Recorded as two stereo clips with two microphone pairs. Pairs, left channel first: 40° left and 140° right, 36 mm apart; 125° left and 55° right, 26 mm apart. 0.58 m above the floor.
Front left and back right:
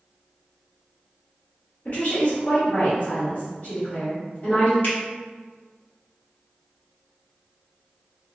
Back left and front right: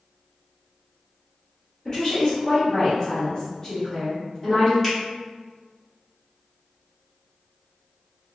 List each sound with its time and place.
1.9 s a woman speaking: 50° left, 1.5 m
4.8 s a finger snap: 30° left, 1.7 m